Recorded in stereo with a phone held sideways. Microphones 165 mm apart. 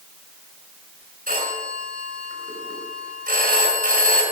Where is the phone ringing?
65° right (ahead or behind), 6 m.